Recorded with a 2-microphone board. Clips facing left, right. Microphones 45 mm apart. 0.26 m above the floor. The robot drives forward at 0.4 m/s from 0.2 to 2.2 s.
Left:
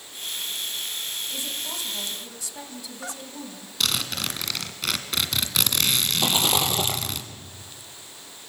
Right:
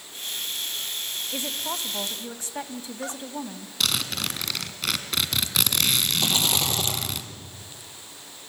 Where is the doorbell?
I don't hear a doorbell.